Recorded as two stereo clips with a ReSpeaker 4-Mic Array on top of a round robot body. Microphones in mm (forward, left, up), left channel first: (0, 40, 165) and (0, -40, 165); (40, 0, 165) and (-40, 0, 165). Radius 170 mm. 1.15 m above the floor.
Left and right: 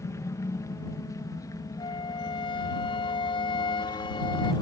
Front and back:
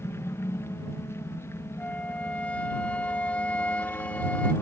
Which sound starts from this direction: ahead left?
A helicopter, at 0.0 s.